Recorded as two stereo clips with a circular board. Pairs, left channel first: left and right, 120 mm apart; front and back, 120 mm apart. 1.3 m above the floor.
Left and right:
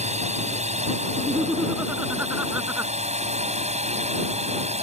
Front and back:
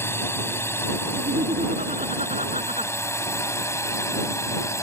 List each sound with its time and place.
0.0 s a drone: 70° right; by 4.8 s 65° right
1.2 s laughter: 160° right